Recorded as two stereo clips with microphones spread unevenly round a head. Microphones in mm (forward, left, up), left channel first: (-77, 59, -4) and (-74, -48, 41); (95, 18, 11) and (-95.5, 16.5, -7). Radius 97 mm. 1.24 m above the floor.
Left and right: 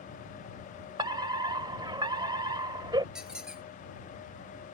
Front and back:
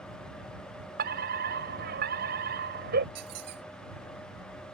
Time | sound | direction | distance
1.0 | a fire alarm | 135° right | ?
3.1 | a squeak | 170° right | ?